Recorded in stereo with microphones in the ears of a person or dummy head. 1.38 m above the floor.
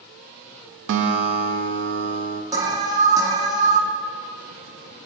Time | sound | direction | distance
0.9 | a guitar | 70° right (ahead or behind) | 0.5 m
2.5 | an alarm | 20° right (ahead or behind) | 0.6 m